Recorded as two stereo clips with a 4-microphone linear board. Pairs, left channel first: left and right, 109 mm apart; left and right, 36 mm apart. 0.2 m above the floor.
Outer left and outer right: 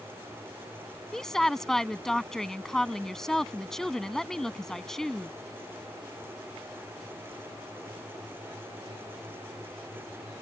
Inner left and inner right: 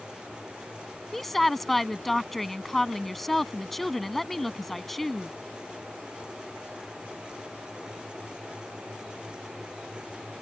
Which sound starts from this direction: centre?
A woman speaking, at 1.1 s.